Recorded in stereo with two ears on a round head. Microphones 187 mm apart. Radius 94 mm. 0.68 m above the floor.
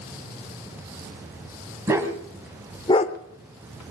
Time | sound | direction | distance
1.9 | a dog barking | 15° right (ahead or behind) | 2 m